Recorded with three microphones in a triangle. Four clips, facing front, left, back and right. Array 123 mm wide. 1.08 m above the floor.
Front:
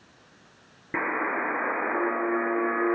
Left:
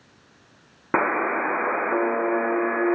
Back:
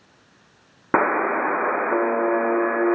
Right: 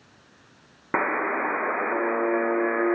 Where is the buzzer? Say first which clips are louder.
Left 3 dB, back 8 dB; 175° left, 0.6 m.